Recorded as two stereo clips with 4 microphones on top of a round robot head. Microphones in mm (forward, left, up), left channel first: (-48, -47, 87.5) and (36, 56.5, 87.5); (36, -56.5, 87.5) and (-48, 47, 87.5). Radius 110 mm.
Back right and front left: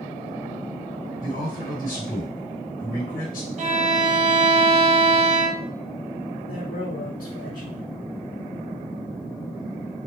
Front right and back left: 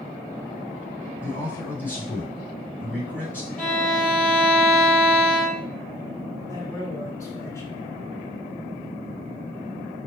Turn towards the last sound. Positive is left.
turn(degrees=-120)